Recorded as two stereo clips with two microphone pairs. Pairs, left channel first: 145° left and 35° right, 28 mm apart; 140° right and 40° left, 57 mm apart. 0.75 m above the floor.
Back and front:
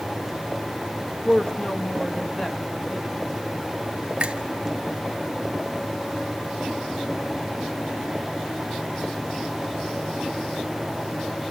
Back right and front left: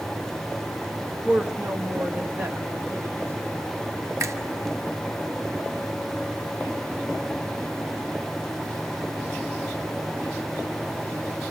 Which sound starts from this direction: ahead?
A finger snap, at 4.2 s.